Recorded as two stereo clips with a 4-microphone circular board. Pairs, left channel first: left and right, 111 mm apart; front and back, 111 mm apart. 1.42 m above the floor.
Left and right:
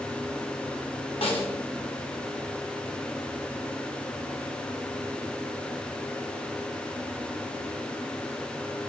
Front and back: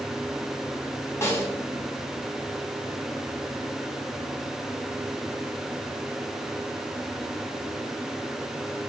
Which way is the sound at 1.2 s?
65° left.